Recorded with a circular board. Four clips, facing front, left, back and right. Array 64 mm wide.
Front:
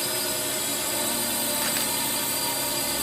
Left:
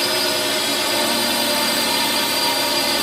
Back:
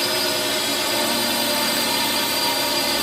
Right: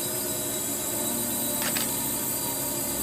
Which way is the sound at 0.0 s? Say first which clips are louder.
Left 12 dB, back 8 dB; 115° left.